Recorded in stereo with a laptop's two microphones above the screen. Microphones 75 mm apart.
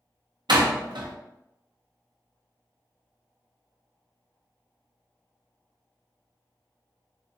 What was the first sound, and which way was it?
A door slam, 75° right (ahead or behind).